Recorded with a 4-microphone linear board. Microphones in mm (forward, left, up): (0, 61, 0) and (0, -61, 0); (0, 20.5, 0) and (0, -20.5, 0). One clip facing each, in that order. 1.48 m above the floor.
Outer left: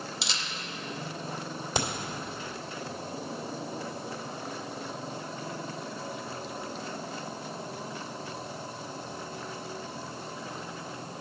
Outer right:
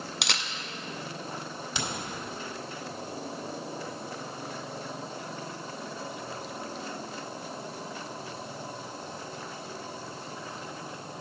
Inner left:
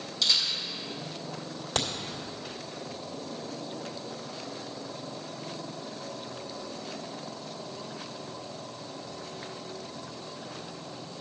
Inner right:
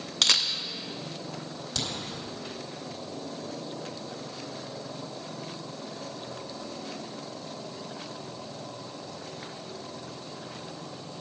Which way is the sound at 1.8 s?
40° left (ahead or behind).